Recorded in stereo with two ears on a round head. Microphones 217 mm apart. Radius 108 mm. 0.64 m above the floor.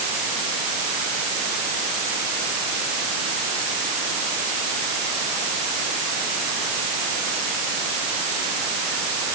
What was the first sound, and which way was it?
Only background noise.